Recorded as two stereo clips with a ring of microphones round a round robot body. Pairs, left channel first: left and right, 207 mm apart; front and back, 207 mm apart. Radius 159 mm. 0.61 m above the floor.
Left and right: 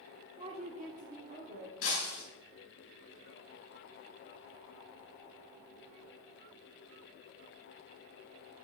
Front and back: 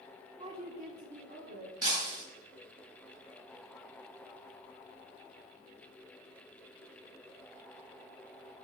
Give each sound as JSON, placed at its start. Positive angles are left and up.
{"t": 0.4, "sound": "a woman speaking", "azimuth_deg": -135, "distance_m": 0.7}
{"t": 1.8, "sound": "breaking glass", "azimuth_deg": 125, "distance_m": 4.5}